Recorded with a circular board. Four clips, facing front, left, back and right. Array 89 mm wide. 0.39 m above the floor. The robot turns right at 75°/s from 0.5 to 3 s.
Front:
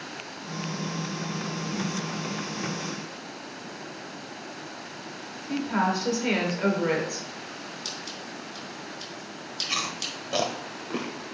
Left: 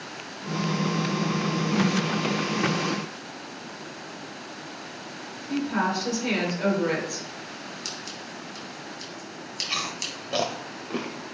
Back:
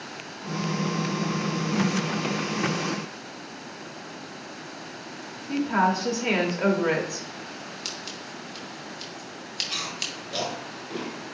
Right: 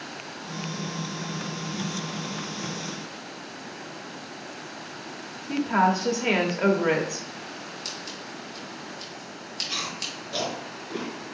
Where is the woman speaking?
115° right, 0.9 m.